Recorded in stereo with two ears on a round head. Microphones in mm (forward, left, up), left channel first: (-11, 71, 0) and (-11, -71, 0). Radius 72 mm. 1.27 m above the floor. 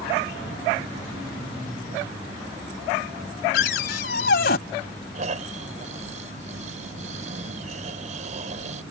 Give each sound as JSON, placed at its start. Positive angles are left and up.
{"t": 3.5, "sound": "a cupboard door", "side_deg": 70}
{"t": 5.2, "sound": "snoring", "side_deg": -50}